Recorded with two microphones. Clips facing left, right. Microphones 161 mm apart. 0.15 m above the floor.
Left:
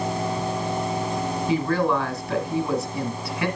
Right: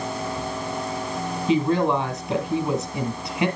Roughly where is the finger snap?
No finger snap in this recording.